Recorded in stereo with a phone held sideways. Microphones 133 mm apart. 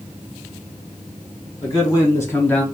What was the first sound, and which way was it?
A man speaking, 30° left (ahead or behind).